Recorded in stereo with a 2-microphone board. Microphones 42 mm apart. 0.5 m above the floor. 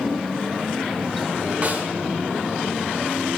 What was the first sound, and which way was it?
A snare drum, 35° right (ahead or behind).